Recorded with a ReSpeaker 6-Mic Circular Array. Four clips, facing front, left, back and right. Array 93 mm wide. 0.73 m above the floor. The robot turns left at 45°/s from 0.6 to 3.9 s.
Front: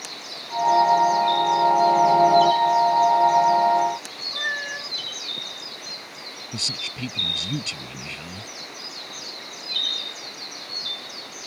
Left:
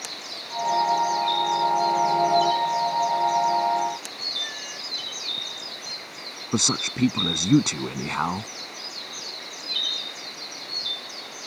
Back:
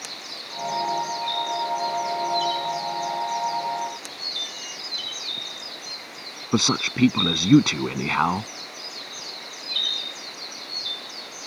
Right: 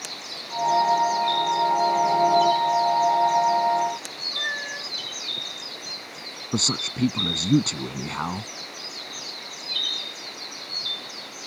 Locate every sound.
4.3 s a cat meowing: 30° right
6.5 s a man speaking: 165° left